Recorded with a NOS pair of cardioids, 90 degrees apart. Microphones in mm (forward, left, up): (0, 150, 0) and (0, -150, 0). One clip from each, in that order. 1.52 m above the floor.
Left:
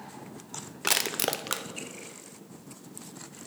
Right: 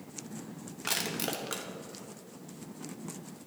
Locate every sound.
0.8 s crushing: 35° left, 0.7 m